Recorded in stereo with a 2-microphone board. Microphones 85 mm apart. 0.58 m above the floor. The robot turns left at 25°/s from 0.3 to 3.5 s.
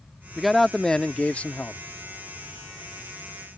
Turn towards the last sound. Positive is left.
turn(degrees=105)